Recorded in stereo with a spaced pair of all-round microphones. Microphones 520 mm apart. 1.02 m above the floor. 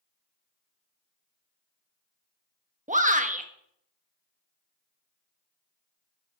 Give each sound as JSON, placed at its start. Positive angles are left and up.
{"t": 2.9, "sound": "a shout", "side_deg": -15, "distance_m": 1.1}